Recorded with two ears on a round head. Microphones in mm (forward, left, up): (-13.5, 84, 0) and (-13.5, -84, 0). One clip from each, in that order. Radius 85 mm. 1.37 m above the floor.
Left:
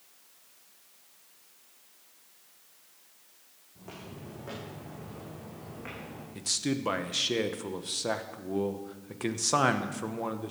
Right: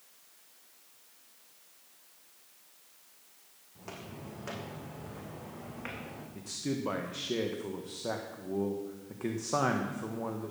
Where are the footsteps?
45° right (ahead or behind), 4 m; by 6.2 s 70° right (ahead or behind), 5 m.